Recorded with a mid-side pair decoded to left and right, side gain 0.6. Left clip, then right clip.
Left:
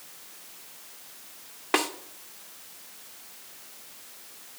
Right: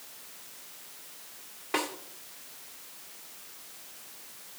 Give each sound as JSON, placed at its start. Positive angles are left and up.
{"t": 1.7, "sound": "a snare drum", "azimuth_deg": 45, "distance_m": 1.4}